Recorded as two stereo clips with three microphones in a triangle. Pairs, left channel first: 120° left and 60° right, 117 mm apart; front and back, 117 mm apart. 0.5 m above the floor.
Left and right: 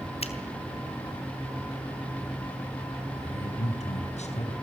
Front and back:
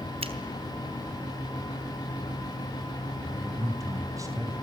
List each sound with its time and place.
0.2 s a finger snap: 150° left, 3 m
3.2 s a man speaking: 120° left, 4 m